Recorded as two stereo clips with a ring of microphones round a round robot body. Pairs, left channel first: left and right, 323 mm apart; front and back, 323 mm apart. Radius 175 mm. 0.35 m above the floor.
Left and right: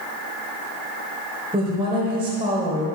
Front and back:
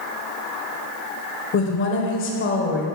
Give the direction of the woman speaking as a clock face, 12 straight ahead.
1 o'clock.